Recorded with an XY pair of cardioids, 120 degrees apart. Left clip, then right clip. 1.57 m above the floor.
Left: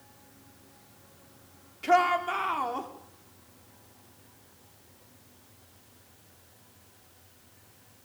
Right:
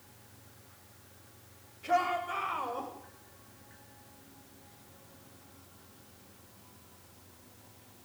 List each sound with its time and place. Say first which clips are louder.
1.8 s a shout: left 6 dB; 65° left, 5 m; by 2.9 s 70° left, 5.5 m